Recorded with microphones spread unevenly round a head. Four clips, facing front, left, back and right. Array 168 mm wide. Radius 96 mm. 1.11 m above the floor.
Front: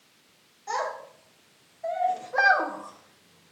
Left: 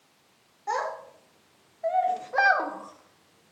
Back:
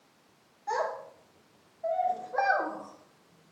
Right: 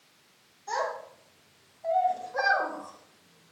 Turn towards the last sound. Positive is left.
turn(degrees=0)